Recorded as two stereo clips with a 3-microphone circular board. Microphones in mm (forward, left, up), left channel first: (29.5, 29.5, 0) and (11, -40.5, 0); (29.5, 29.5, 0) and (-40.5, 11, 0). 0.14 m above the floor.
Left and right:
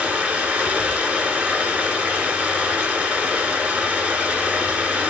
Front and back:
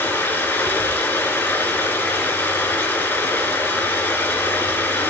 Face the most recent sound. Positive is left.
turn(degrees=-40)